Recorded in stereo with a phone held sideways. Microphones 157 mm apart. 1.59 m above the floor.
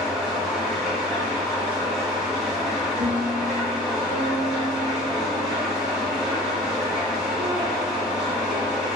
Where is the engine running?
5° right (ahead or behind), 0.9 m.